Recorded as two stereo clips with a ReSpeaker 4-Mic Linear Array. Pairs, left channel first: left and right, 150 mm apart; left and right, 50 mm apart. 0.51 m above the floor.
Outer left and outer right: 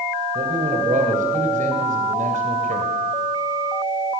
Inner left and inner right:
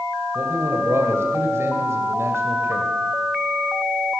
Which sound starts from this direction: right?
A man speaking, at 0.3 s.